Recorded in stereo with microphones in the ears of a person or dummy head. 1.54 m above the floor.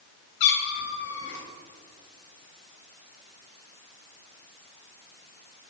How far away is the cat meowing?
About 2.5 m.